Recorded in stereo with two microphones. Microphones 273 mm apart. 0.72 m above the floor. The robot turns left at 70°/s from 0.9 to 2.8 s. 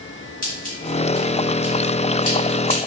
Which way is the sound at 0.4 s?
30° left (ahead or behind).